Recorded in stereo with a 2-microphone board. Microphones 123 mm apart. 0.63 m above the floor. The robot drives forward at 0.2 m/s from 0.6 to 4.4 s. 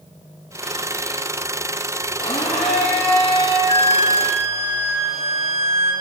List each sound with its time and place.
2.2 s a blender: 65° left (ahead or behind), 4 m; by 3.6 s 60° left (ahead or behind), 4 m
3.7 s a flute: 70° right (ahead or behind), 4.5 m; by 5.9 s 65° right (ahead or behind), 4.5 m